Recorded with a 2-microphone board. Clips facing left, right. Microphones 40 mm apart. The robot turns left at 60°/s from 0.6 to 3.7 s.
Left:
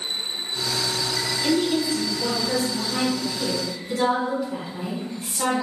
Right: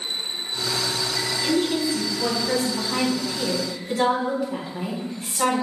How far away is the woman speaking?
About 1.8 m.